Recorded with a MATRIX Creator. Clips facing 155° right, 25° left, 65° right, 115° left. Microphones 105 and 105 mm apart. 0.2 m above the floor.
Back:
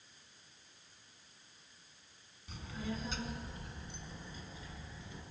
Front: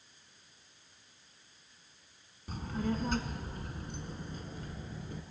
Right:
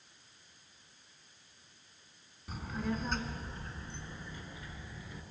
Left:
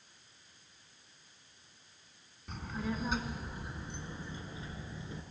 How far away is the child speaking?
About 1.4 m.